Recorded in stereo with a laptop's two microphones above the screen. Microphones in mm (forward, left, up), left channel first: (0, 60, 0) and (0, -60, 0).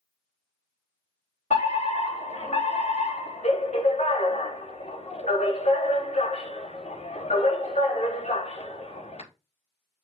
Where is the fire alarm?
70° left (ahead or behind), 4 m.